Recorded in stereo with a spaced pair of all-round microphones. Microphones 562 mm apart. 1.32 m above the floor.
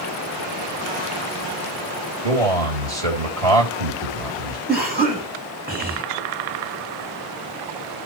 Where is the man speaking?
80° right, 3.5 m.